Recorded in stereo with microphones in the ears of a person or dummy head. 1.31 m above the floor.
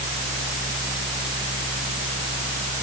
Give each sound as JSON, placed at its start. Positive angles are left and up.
{"t": 0.0, "sound": "a fan", "side_deg": 5}